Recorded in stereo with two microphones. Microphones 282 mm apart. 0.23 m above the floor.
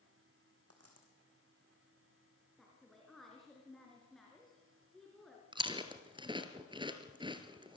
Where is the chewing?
15° right (ahead or behind), 2 m.